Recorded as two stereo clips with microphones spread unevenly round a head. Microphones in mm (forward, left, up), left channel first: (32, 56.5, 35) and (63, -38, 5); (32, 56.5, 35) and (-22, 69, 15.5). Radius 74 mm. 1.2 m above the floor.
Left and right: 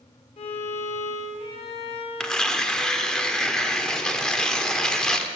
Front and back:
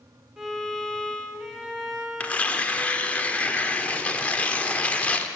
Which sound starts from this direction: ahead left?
Tearing paper, at 2.2 s.